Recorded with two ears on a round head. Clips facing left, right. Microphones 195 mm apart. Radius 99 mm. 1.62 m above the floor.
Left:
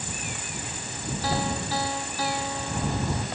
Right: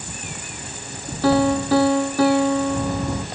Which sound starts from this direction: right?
A piano, at 1.2 s.